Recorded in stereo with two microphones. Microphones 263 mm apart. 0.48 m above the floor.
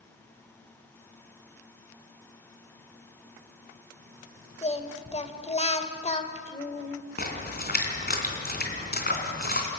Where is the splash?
35° left (ahead or behind), 3 m.